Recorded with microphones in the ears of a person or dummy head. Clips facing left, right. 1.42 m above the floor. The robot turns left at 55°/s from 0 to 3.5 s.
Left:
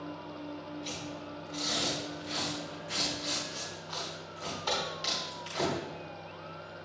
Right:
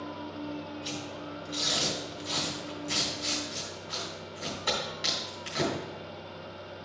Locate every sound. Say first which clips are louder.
0.8 s tearing paper: right 2 dB; 10° right (ahead or behind), 3.5 m; by 5.7 s 20° right (ahead or behind), 3.5 m